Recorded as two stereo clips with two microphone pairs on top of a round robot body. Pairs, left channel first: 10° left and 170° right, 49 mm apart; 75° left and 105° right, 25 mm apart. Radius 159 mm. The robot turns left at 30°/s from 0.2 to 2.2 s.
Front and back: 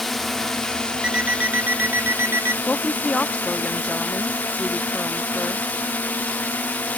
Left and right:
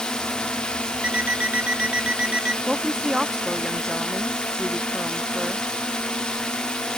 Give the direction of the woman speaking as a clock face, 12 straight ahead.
2 o'clock.